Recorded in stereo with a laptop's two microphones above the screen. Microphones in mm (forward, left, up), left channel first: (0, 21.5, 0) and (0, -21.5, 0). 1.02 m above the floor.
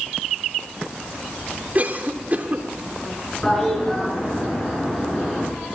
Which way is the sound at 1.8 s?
40° right (ahead or behind).